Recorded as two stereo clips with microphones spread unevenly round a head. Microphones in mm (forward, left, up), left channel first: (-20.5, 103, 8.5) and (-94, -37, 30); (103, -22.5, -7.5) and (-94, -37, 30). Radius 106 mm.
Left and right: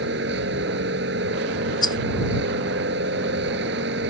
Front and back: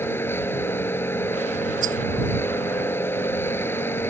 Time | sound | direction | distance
0.0 | a machine running | 75° right | ?
1.8 | a rattle | 130° left | ?